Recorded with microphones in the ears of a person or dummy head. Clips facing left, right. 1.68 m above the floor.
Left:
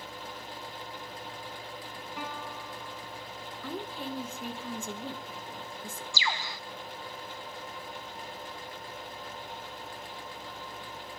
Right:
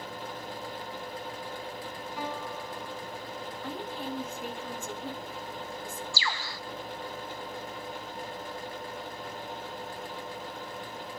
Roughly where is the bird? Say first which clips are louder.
Even; centre.